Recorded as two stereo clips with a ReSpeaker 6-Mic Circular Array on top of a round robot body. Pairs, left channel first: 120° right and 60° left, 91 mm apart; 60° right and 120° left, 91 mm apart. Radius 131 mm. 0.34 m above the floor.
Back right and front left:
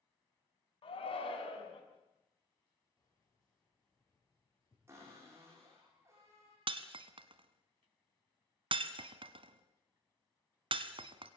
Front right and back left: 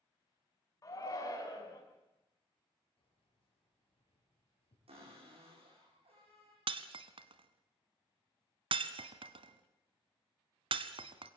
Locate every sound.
0.8 s a shout: 110° right, 4.5 m
3.0 s keys jangling: 65° right, 7 m
4.9 s a cupboard door: 125° left, 8.5 m
6.7 s breaking glass: 90° left, 0.7 m